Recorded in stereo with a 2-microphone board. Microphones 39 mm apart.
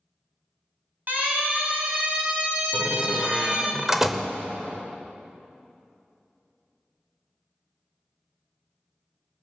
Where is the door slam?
10° right (ahead or behind), 1.0 m.